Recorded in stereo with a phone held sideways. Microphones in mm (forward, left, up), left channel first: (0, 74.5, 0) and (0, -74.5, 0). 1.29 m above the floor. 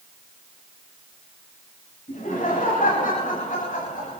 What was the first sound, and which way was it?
Laughter, 70° left (ahead or behind).